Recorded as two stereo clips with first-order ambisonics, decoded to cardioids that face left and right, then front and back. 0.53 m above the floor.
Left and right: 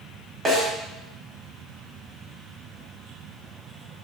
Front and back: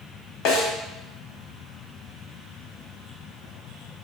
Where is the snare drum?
15° right, 1.0 m.